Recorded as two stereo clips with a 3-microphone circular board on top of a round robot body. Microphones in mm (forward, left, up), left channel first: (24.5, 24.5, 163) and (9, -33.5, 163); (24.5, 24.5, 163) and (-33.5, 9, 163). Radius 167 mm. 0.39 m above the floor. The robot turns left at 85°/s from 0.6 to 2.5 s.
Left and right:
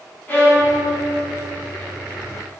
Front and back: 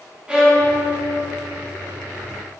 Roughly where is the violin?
Behind left.